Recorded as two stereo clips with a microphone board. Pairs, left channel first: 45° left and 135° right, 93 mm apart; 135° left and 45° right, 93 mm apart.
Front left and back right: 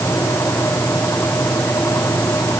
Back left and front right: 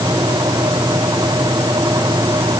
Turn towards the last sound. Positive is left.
No sound to turn to.